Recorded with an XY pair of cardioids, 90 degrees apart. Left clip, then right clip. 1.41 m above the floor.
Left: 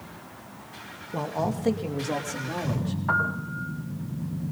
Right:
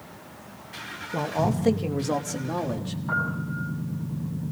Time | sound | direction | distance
1.1 | a man speaking | 15° right | 2 m
3.1 | a piano | 65° left | 6 m